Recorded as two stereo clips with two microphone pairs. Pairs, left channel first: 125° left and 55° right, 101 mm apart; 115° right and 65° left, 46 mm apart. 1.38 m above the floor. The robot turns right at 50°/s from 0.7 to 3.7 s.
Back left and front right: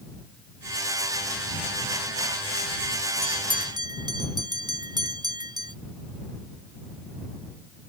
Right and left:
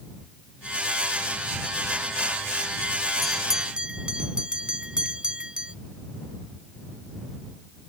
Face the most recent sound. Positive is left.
turn(degrees=-5)